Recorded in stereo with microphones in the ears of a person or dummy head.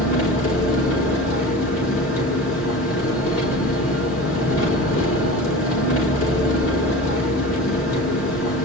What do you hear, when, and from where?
0.0 s an engine running: 85° left, 5.5 m